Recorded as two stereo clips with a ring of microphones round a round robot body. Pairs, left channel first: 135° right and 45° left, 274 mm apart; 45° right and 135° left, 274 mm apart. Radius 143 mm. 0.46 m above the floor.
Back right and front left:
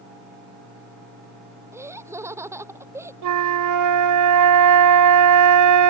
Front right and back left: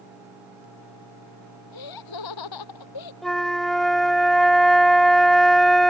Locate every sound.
1.7 s laughter: 35° right
3.2 s a flute: 45° left